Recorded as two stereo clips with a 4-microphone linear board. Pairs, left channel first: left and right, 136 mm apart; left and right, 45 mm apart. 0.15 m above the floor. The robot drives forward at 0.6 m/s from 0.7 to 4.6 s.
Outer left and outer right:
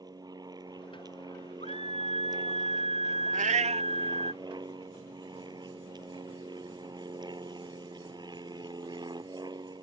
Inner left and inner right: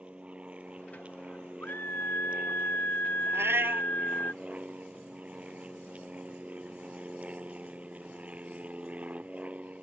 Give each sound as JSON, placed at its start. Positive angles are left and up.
{"t": 0.0, "sound": "an aircraft", "side_deg": -30}
{"t": 1.6, "sound": "a scream", "side_deg": 55}
{"t": 3.3, "sound": "a cat meowing", "side_deg": -75}